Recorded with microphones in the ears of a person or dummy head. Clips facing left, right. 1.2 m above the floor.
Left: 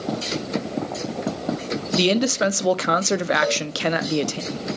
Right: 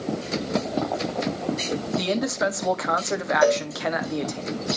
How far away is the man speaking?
About 0.5 m.